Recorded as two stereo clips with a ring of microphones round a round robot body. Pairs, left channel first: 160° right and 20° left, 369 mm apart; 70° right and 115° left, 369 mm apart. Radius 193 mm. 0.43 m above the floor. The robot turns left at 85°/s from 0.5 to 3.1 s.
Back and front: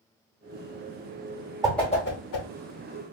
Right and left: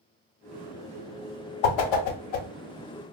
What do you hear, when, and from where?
1.6 s a whoosh: 55° right, 0.6 m; by 2.5 s 130° right, 0.6 m